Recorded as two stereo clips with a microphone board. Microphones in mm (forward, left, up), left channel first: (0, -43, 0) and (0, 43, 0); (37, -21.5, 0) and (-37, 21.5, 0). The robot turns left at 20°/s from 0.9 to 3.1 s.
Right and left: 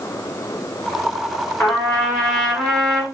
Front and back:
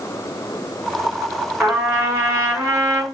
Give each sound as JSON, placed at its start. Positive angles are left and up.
{"t": 1.6, "sound": "a trumpet", "azimuth_deg": -150, "distance_m": 1.7}